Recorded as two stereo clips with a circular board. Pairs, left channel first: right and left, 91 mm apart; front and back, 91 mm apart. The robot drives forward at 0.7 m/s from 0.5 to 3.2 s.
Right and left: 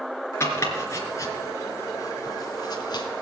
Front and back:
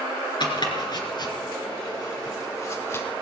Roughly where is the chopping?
Ahead right.